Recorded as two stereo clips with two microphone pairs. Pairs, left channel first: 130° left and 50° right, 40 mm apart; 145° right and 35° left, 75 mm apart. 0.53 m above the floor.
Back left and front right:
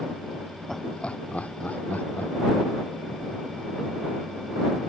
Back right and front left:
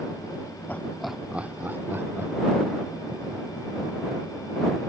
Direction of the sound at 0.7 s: 160° right.